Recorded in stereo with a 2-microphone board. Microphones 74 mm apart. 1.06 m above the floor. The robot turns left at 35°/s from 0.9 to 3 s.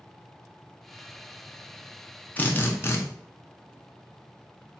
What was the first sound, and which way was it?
A drill, 25° left (ahead or behind).